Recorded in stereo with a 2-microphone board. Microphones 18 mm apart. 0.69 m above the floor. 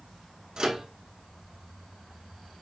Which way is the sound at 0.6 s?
55° right (ahead or behind).